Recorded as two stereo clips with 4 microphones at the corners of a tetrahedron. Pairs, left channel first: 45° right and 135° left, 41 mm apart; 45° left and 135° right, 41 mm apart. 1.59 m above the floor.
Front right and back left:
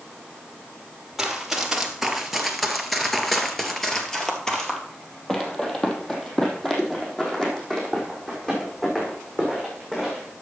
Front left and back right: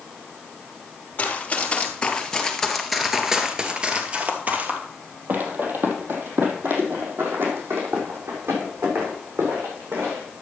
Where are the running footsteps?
60° left, 2 m; by 10.4 s 120° right, 6.5 m.